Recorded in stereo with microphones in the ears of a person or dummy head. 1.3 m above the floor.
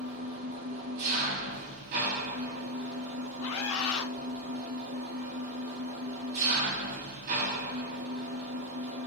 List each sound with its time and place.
0.0 s an engine running: 45° right (ahead or behind), 1.9 m
3.4 s a scream: 85° left, 0.5 m